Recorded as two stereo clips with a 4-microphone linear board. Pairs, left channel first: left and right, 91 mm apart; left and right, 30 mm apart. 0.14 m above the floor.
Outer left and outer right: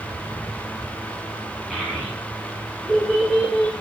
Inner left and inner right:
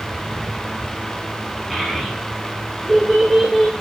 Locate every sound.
1.7 s a child speaking: 5° right (ahead or behind), 6.5 m